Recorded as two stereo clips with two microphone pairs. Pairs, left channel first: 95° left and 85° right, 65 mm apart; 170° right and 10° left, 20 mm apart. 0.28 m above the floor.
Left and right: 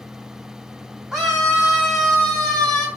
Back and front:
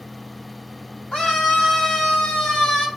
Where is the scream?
160° right, 2.5 m; by 2.9 s 170° left, 2.5 m.